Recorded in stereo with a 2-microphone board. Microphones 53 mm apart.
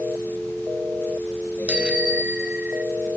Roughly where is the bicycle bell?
Right.